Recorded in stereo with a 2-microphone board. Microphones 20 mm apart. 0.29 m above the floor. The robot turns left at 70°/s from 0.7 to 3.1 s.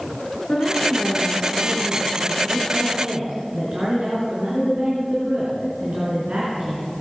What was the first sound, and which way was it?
A woman speaking, 75° left.